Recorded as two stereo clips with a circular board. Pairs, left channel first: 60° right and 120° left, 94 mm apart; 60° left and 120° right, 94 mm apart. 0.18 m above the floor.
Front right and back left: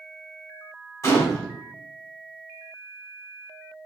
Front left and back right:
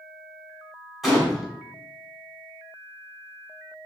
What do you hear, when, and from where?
1.0 s a gunshot: 30° right, 1.2 m